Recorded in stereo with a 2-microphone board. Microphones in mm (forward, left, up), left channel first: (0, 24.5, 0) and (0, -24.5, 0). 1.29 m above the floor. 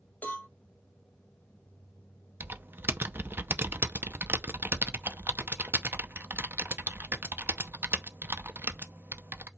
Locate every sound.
0.2 s a cowbell: 35° left (ahead or behind), 3 m
2.4 s typing on a keyboard: 45° right (ahead or behind), 0.8 m